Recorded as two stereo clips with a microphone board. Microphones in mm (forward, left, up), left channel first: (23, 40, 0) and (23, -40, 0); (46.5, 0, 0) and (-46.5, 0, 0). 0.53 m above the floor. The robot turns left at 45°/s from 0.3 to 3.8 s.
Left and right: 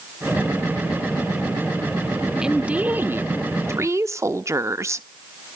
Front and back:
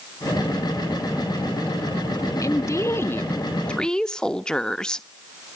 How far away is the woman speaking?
About 0.7 m.